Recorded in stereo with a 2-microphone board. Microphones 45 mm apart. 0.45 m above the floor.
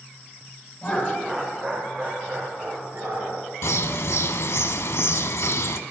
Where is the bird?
70° left (ahead or behind), 0.6 m.